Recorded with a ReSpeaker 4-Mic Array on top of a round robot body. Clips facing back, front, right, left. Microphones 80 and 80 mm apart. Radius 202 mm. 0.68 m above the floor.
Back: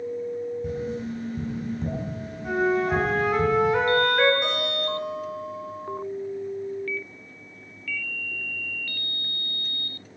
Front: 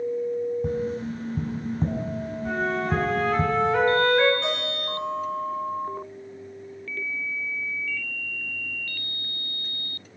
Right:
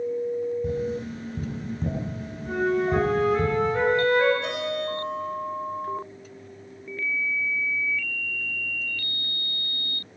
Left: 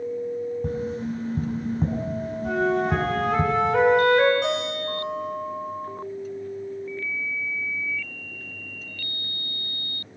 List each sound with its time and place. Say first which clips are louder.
0.6 s tapping: front 2 dB, even; 45° left, 7.5 m
2.4 s a flute: back 4 dB, left 1 dB; 100° left, 4 m
4.4 s a guitar: back 2 dB, left 2 dB; 100° left, 9.5 m